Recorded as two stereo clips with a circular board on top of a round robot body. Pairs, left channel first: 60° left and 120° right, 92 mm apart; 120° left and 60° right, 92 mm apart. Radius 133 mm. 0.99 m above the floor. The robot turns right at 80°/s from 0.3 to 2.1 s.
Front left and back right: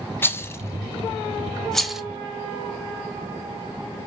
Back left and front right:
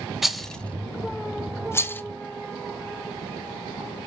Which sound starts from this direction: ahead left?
A rattle, at 0.2 s.